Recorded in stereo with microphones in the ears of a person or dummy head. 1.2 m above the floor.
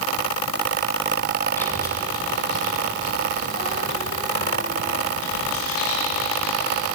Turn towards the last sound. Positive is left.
turn(degrees=75)  # may be behind; listen again after turning